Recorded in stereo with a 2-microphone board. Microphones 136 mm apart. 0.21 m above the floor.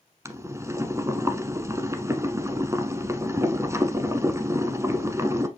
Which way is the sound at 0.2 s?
20° right (ahead or behind).